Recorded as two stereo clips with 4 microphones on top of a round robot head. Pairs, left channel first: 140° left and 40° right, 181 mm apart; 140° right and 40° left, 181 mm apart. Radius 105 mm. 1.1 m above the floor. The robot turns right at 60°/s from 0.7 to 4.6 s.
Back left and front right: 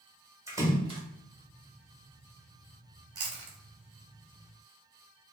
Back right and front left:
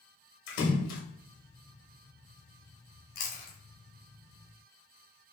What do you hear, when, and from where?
0.5 s a splash: 115° right, 1.1 m; by 1.0 s 95° right, 1.1 m
3.1 s chewing: 105° right, 0.8 m; by 3.6 s 80° right, 0.8 m